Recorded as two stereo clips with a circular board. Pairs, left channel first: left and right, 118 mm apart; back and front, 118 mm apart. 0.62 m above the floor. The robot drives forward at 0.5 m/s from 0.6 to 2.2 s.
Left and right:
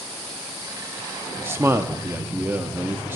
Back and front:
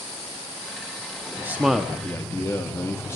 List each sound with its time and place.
1.4 s a man speaking: 40° right, 0.6 m; by 3.2 s 140° right, 0.6 m